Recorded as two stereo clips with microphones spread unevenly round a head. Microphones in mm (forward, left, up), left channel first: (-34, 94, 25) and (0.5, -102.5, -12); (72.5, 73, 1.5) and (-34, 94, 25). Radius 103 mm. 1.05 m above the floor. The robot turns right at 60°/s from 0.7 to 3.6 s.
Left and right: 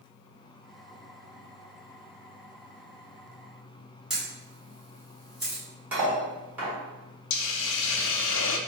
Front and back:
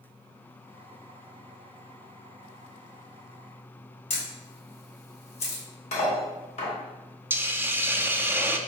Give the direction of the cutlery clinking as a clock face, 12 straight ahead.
12 o'clock.